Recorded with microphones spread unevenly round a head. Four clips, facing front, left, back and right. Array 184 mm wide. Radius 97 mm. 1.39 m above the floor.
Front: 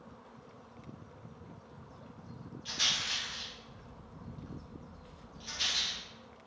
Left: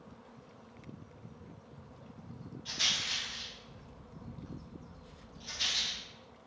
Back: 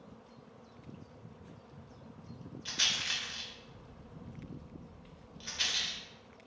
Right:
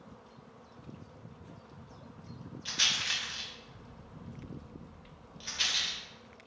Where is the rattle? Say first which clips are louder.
Right 4 dB, front 1 dB; 145° right, 0.7 m.